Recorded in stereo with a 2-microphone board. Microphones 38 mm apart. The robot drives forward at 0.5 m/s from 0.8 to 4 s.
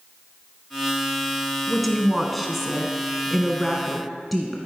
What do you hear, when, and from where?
1.7 s a woman speaking: centre (ahead or behind), 1.2 m